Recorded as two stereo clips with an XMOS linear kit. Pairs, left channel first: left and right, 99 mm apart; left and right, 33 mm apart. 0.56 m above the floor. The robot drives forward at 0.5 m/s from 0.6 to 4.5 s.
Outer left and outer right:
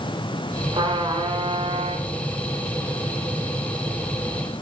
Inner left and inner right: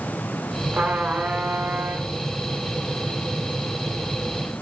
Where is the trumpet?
55° right (ahead or behind), 1.1 m; by 2.1 s 75° right (ahead or behind), 1.0 m.